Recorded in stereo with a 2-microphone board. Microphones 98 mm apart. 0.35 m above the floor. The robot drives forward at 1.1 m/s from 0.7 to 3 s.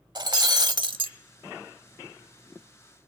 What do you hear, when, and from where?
0.1 s breaking glass: 45° right (ahead or behind), 0.8 m; by 1.1 s 60° right (ahead or behind), 0.7 m